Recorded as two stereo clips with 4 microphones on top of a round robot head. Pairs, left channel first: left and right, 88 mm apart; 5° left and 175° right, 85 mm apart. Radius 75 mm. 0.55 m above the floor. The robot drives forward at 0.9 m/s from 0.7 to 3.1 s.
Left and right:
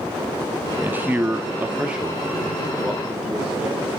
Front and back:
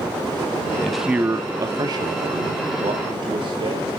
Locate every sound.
0.8 s a man speaking: 65° right, 0.8 m; by 3.9 s 170° right, 2 m